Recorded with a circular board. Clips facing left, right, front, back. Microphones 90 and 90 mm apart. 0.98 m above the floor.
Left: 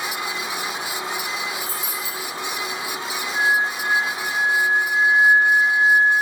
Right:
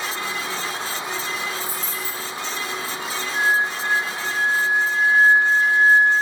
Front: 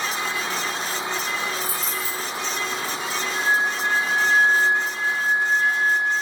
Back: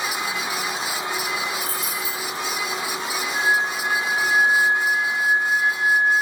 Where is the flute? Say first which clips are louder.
Even, back 1 dB; 105° right, 3.5 m.